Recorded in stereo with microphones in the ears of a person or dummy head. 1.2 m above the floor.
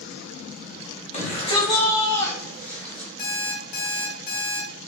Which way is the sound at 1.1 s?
35° left (ahead or behind).